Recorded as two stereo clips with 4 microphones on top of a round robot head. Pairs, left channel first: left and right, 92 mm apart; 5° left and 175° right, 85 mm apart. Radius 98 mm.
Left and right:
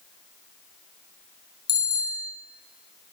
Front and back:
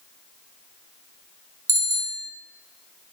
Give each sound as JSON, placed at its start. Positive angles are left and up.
{"t": 1.7, "sound": "a bicycle bell", "azimuth_deg": 140, "distance_m": 5.5}